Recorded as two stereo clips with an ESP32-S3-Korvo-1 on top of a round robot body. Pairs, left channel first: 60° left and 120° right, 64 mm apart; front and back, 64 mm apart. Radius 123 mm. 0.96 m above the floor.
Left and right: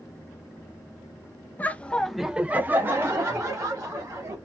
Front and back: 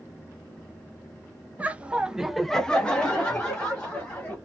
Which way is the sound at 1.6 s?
120° left.